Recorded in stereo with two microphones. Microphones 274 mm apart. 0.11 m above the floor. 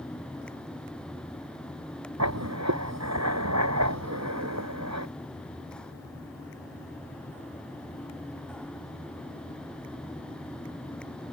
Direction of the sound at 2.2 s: 75° right (ahead or behind).